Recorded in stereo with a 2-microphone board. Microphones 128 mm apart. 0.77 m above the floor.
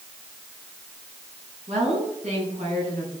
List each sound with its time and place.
1.7 s a woman speaking: 60° right (ahead or behind), 6.5 m